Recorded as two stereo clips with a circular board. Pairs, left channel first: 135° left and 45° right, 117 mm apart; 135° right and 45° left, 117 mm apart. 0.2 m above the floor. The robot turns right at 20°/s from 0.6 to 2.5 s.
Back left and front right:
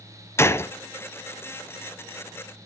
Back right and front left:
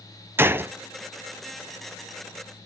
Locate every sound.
0.4 s a gunshot: 95° left, 0.8 m